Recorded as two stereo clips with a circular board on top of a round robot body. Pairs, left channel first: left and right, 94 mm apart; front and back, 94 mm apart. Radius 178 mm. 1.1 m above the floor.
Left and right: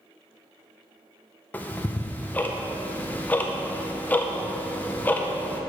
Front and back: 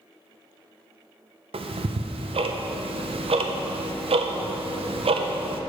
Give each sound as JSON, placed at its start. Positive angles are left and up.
{"t": 1.5, "sound": "ticking", "azimuth_deg": 165, "distance_m": 0.6}